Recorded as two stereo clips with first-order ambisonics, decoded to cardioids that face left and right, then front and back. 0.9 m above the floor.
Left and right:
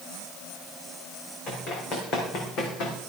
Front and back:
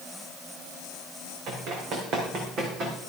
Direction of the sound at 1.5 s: 140° left.